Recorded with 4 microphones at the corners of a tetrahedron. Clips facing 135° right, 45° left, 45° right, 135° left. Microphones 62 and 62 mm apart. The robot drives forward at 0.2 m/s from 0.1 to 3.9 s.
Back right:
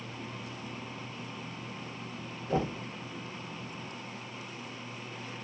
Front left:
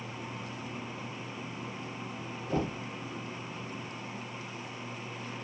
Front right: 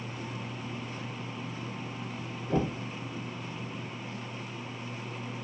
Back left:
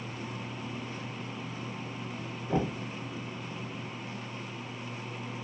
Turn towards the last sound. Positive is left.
turn(degrees=180)